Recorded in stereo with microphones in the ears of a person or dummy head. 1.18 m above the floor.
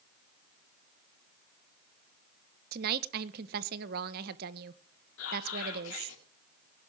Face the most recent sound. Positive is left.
turn(degrees=75)  # may be behind; listen again after turning